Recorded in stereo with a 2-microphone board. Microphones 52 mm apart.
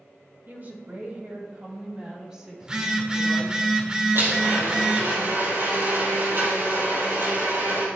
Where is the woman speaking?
45° right (ahead or behind), 2 m; by 3.6 s 5° right (ahead or behind), 4 m.